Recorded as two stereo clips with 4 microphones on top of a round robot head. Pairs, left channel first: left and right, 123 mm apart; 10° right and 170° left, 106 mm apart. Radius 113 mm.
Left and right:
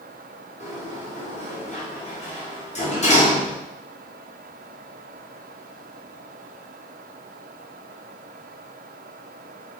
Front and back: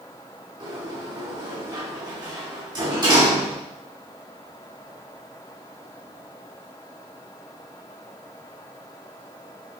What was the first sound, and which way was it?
A sliding door, 120° left.